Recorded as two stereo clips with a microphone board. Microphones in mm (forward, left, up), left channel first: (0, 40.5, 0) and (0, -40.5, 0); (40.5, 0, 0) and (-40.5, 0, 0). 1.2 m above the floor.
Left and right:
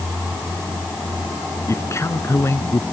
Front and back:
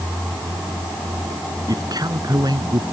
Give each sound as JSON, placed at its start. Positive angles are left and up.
{"t": 1.7, "sound": "a man speaking", "azimuth_deg": 145}